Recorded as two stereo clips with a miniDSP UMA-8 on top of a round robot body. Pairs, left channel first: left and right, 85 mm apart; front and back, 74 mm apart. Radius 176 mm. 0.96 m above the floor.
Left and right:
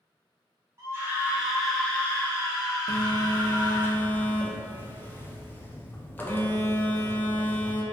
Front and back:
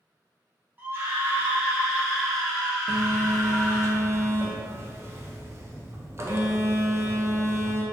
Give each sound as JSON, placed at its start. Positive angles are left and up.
{"t": 0.8, "sound": "a scream", "azimuth_deg": -130, "distance_m": 0.9}
{"t": 2.9, "sound": "a phone buzzing", "azimuth_deg": 145, "distance_m": 0.5}